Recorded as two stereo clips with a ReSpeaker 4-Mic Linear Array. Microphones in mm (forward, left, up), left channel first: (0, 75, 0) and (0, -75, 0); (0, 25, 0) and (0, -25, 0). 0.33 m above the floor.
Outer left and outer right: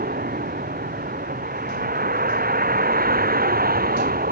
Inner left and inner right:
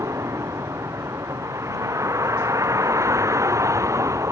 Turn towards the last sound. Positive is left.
turn(degrees=-80)